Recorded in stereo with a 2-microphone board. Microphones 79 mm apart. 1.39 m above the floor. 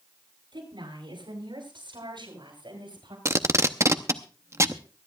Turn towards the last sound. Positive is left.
turn(degrees=-35)  # may be behind; listen again after turning